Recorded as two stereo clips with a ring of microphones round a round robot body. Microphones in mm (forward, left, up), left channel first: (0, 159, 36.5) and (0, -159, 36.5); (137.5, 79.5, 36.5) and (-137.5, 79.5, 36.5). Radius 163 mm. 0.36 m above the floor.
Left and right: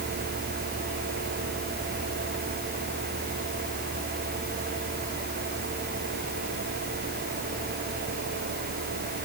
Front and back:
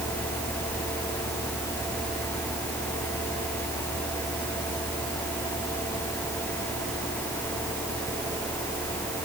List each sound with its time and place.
Only background noise.